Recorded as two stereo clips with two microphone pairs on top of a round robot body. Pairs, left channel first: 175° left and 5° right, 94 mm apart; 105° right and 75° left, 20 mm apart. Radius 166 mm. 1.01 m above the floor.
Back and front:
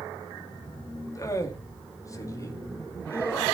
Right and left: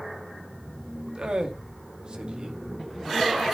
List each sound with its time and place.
1.1 s a man speaking: 120° left, 2.5 m